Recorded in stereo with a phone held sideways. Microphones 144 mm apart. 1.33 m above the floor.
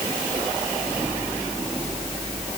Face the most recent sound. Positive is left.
No sound to turn to.